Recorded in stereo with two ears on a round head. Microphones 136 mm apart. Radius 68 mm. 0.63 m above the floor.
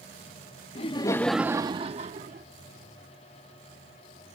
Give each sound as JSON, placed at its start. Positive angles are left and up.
{"t": 0.8, "sound": "laughter", "side_deg": 40}